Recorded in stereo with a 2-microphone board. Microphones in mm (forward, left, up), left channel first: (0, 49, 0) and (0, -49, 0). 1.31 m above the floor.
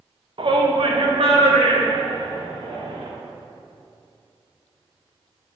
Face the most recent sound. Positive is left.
turn(degrees=-80)